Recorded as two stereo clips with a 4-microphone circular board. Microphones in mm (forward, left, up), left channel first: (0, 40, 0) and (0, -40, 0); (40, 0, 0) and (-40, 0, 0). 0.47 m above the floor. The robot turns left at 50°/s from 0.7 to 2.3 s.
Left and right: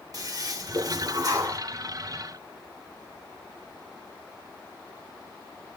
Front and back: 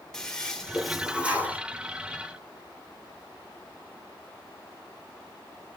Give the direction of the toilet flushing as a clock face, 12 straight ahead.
3 o'clock.